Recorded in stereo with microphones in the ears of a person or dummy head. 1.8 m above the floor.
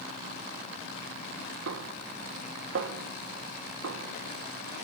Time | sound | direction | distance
1.7 | a snare drum | 75° right (ahead or behind) | 1.7 m